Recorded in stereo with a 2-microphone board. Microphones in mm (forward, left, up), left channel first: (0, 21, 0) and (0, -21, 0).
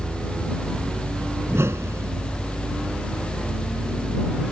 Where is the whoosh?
85° right.